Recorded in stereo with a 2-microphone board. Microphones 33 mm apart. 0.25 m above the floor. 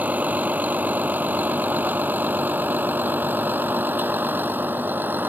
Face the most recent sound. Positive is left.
turn(degrees=-80)